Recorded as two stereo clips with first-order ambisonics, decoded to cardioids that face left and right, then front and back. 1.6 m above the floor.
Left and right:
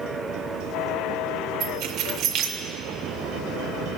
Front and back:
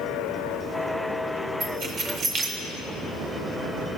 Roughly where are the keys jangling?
Behind right.